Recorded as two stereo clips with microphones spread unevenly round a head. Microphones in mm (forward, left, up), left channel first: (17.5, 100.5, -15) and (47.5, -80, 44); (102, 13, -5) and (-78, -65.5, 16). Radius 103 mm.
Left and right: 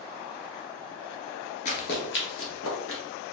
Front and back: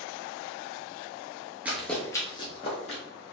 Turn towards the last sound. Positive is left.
turn(degrees=80)